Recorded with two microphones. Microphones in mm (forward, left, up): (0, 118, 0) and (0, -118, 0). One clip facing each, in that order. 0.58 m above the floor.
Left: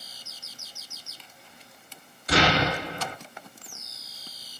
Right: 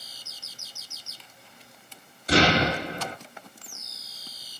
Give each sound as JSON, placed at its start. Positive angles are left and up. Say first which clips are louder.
{"t": 2.3, "sound": "an explosion", "louder": "right 2 dB", "side_deg": -30, "distance_m": 1.3}